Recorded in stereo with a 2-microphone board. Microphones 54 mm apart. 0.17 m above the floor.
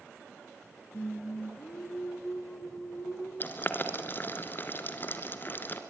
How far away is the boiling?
About 2.5 m.